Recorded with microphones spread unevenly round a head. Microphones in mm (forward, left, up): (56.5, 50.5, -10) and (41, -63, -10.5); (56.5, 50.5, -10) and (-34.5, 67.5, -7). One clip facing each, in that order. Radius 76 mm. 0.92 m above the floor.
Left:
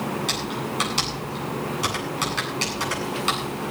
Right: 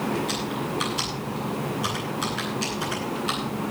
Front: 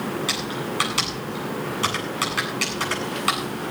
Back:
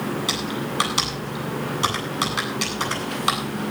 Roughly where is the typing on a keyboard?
Left.